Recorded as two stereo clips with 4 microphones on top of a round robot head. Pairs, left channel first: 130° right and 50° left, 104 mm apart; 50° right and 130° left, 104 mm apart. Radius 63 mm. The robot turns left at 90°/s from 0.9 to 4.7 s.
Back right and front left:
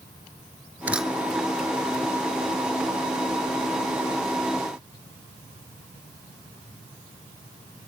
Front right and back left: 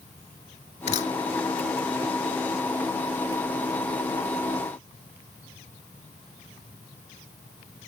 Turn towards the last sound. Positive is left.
turn(degrees=-10)